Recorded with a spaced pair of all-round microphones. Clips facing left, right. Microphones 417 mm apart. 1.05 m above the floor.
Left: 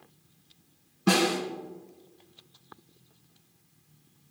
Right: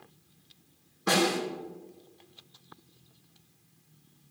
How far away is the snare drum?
About 3 m.